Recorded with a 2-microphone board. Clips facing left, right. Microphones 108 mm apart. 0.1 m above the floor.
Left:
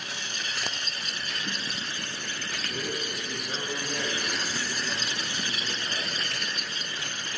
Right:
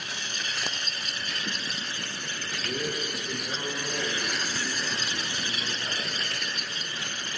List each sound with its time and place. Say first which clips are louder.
2.6 s a man speaking: right 3 dB; 75° right (ahead or behind), 5 m; by 7.3 s 65° right (ahead or behind), 7 m